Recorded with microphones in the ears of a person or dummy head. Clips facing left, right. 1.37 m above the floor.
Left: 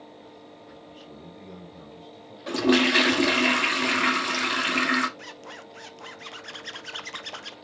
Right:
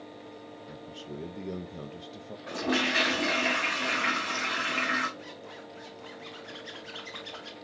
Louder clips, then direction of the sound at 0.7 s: Right 5 dB; 55° right (ahead or behind).